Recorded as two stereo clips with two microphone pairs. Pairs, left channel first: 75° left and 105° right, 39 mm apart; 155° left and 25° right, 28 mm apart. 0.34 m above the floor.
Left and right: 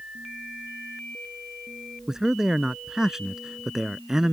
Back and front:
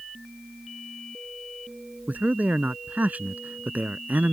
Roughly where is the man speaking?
Ahead right.